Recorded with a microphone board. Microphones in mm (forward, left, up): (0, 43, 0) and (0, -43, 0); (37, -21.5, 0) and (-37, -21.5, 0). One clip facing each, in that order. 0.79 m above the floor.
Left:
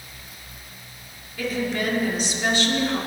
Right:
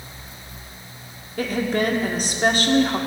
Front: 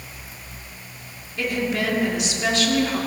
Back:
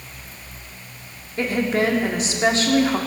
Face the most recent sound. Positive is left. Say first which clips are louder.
# right 4 dB, back 4 dB
turn(degrees=-130)